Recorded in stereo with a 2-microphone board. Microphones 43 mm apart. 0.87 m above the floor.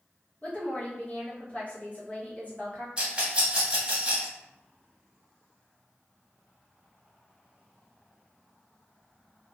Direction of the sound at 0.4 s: 35° left (ahead or behind).